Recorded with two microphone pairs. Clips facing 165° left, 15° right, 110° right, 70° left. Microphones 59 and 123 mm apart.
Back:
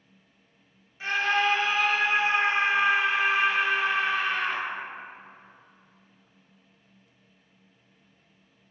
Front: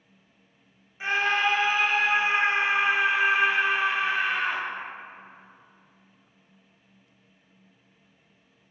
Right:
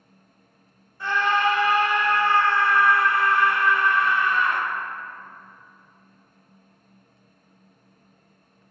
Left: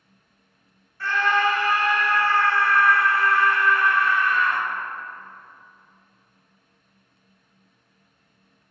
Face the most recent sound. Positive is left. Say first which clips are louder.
# front 1 dB, even
turn(degrees=-60)